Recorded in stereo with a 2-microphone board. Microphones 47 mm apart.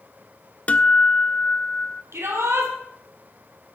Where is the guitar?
30° left (ahead or behind), 0.7 m.